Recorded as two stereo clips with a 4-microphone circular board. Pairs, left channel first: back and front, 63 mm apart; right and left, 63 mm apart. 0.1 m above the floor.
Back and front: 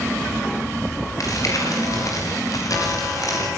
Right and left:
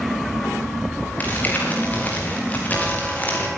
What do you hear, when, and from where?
1.2 s crumpling: 155° right, 8 m